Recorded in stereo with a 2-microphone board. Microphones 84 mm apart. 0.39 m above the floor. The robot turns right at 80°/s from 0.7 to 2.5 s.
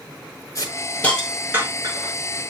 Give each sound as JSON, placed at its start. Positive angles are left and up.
{"t": 0.6, "sound": "a hiss", "side_deg": 40, "distance_m": 5.0}